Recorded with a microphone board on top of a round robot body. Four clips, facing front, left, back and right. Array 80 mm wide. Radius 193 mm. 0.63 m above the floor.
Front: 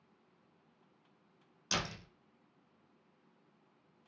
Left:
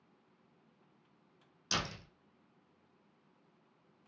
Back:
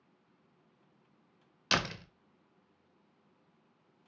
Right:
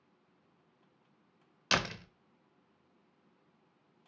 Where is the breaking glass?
No breaking glass in this recording.